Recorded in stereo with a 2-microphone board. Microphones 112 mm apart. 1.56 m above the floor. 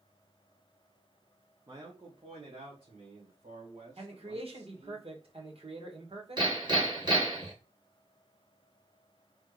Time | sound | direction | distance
1.7 | a man speaking | 35° right (ahead or behind) | 0.7 m
4.0 | a man speaking | 60° right (ahead or behind) | 1.4 m
6.4 | hammering | 40° right (ahead or behind) | 1.6 m